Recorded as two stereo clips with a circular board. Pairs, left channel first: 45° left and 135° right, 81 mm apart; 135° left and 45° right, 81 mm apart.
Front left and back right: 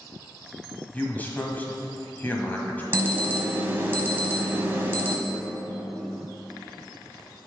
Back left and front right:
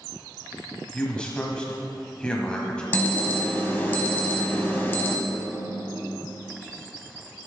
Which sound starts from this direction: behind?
An alarm, at 2.9 s.